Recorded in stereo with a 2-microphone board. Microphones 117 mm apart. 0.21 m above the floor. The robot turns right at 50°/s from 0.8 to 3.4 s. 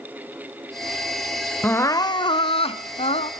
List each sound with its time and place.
1.6 s crying: 20° left, 0.7 m; by 3.3 s 105° left, 0.7 m